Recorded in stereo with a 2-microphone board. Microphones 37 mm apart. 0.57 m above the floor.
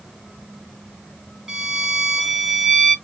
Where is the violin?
10° right (ahead or behind), 1.4 m.